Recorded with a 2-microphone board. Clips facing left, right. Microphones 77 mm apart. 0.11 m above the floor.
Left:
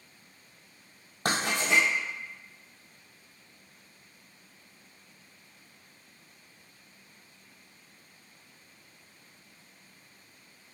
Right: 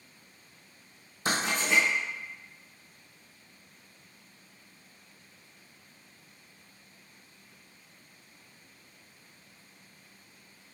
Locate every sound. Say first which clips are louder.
1.2 s writing: left 1 dB; 65° left (ahead or behind), 1.3 m